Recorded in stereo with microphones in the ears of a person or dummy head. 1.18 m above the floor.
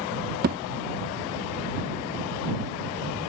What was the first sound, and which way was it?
A thud, 45° right (ahead or behind).